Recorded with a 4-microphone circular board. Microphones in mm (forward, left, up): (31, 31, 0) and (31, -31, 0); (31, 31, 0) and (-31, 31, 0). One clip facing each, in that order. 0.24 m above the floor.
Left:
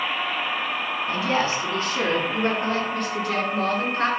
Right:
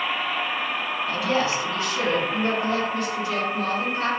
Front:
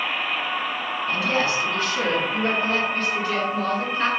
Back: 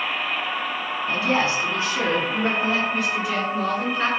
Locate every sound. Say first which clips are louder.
1.1 s a woman speaking: even, back 1 dB; 135° left, 2.5 m; by 4.1 s 95° left, 3.5 m